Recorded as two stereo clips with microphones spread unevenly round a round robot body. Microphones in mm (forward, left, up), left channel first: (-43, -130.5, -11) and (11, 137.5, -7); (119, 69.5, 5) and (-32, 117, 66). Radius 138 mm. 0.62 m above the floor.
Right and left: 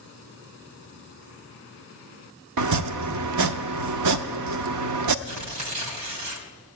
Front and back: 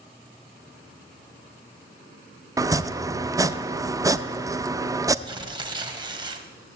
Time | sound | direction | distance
2.6 | chopping | 85° left | 0.7 m
5.2 | tearing paper | 100° left | 1.8 m